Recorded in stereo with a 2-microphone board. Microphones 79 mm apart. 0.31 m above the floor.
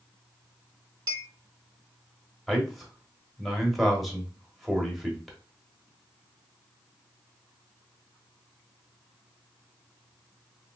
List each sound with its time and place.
1.1 s a clink: 45° right (ahead or behind), 0.8 m
2.5 s a man speaking: centre (ahead or behind), 0.9 m